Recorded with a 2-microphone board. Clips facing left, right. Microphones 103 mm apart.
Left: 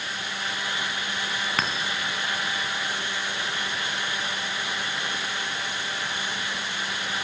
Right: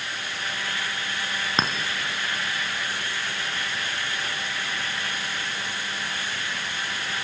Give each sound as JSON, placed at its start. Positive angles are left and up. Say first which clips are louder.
{"t": 1.6, "sound": "a clink", "louder": "right 3 dB", "side_deg": -20, "distance_m": 1.0}